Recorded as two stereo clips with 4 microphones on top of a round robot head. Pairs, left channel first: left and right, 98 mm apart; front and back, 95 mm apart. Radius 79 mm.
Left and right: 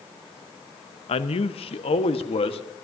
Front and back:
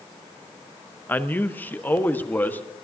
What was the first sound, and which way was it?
A man speaking, 75° left.